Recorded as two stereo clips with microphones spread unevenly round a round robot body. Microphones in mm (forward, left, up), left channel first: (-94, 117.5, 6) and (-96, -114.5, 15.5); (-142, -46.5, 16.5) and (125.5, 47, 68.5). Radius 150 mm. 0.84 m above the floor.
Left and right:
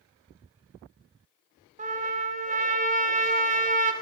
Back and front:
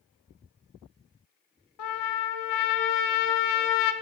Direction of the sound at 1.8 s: 135° right.